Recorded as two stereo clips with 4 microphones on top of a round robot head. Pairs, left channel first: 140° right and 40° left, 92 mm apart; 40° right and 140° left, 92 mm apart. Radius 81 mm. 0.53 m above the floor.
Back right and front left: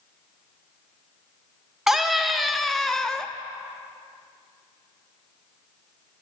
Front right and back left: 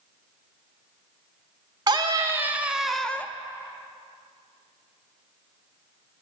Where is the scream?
120° left, 0.9 m; by 3.3 s 70° right, 0.8 m.